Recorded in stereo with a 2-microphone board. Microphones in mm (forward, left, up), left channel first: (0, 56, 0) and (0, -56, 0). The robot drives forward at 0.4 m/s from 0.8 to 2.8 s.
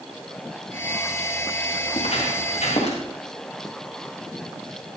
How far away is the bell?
I don't hear a bell.